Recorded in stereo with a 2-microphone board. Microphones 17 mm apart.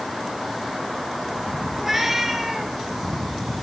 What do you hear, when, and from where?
1.8 s a cat meowing: 15° right (ahead or behind), 2.0 m; by 2.8 s 35° right (ahead or behind), 2.5 m